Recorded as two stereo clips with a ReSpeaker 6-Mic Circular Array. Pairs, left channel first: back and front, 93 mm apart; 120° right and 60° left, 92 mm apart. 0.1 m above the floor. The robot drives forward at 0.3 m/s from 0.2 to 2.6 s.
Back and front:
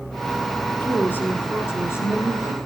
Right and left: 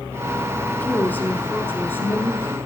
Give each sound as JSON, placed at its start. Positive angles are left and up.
{"t": 0.6, "sound": "a woman speaking", "azimuth_deg": -150, "distance_m": 1.7}